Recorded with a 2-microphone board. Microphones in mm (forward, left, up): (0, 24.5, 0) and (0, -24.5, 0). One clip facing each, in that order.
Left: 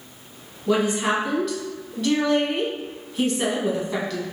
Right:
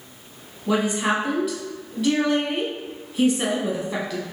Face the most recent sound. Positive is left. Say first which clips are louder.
# left 1 dB
turn(degrees=-5)  # may be behind; listen again after turning